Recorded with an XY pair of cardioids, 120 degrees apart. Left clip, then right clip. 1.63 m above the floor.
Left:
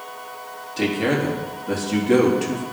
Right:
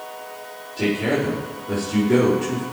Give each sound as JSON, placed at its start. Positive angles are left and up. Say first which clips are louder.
{"t": 0.8, "sound": "a man speaking", "louder": "even", "azimuth_deg": 60, "distance_m": 3.5}